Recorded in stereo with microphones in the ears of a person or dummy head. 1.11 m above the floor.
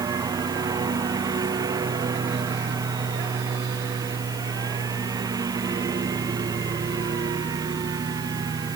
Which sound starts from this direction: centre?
A lawn mower, at 0.0 s.